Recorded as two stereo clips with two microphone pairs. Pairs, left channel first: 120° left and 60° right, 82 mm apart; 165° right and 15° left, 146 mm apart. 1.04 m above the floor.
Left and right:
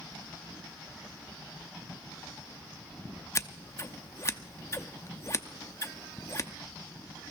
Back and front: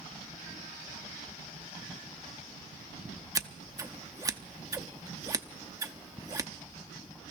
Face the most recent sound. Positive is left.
turn(degrees=75)